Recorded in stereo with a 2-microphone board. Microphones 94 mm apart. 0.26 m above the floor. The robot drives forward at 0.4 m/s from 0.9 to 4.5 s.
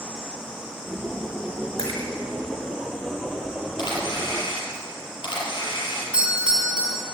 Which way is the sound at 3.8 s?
55° left (ahead or behind).